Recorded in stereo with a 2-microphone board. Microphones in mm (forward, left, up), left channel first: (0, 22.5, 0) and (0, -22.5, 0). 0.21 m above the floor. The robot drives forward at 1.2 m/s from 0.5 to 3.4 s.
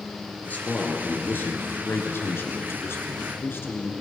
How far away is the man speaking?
About 4 m.